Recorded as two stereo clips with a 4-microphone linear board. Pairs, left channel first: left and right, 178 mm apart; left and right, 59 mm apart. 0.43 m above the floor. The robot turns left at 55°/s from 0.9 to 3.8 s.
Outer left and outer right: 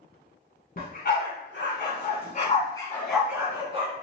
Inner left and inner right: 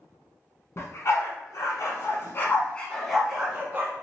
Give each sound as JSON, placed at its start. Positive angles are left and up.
{"t": 0.8, "sound": "a dog barking", "side_deg": 55, "distance_m": 1.1}